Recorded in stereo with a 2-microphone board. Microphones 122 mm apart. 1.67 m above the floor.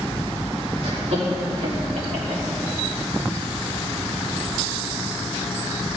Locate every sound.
0.8 s laughter: 70° right (ahead or behind), 3.5 m; by 2.4 s 75° right (ahead or behind), 3 m